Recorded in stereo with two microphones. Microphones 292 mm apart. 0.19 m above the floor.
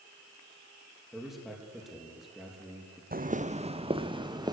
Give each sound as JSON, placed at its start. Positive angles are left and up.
{"t": 1.1, "sound": "a man speaking", "side_deg": 0, "distance_m": 5.0}
{"t": 3.1, "sound": "footsteps", "side_deg": -30, "distance_m": 0.8}